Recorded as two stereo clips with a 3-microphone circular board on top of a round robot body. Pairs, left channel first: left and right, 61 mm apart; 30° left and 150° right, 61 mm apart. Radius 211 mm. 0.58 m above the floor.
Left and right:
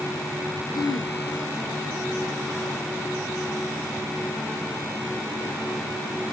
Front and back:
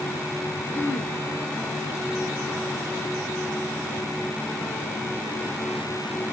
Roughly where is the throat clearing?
Left.